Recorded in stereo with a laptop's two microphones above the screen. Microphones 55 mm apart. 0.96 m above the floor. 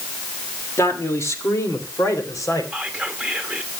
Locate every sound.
0.8 s a man speaking: 55° left (ahead or behind), 1.9 m; by 2.6 s 70° left (ahead or behind), 3 m
2.7 s whispering: 5° left (ahead or behind), 1.6 m